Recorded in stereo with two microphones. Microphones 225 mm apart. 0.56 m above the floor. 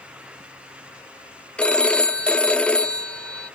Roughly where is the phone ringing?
Centre.